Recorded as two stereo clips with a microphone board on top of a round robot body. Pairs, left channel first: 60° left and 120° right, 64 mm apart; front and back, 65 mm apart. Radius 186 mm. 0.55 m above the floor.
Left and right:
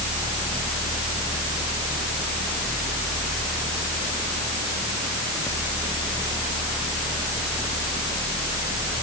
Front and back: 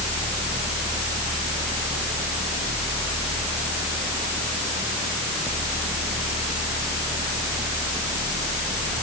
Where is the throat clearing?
I don't hear throat clearing.